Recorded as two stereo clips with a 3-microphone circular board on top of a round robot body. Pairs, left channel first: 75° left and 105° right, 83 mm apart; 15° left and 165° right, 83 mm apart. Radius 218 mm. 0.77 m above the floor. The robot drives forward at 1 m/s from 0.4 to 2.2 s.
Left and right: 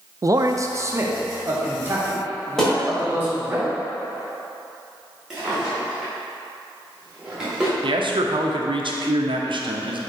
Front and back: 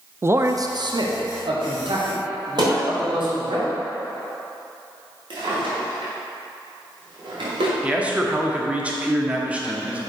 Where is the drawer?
170° left, 2.5 m.